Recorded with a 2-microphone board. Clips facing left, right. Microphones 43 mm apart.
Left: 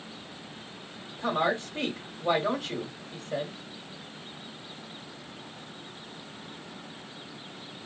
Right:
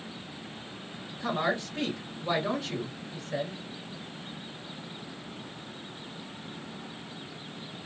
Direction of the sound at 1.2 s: 50° left (ahead or behind).